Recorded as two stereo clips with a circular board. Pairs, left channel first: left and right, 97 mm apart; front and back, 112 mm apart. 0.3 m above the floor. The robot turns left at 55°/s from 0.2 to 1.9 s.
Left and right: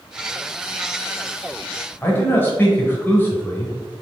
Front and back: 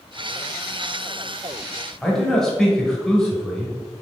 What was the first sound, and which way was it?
A man speaking, 80° left.